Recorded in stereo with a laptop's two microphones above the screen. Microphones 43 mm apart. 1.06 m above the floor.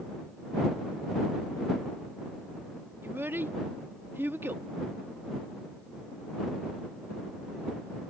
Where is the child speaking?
60° right (ahead or behind).